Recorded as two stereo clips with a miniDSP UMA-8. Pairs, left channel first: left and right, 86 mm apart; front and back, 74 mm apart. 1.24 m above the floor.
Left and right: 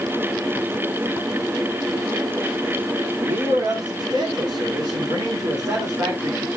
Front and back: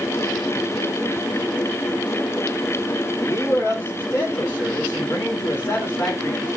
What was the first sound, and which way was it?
A man speaking, 55° right.